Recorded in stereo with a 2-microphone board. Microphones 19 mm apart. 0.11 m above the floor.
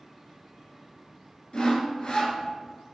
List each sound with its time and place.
1.5 s sawing: 45° left (ahead or behind), 0.6 m